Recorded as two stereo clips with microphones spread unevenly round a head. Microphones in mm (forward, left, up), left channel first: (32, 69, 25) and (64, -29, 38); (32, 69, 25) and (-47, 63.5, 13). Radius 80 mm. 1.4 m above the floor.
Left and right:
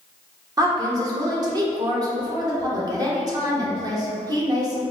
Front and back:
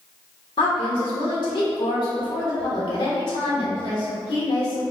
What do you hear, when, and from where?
0.6 s a woman speaking: 20° right, 1.0 m